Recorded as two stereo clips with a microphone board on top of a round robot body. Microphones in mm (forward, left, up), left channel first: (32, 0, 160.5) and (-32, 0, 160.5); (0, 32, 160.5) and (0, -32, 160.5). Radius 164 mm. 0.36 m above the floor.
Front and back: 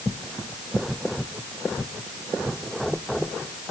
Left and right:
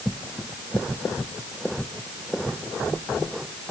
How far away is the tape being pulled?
I don't hear tape being pulled.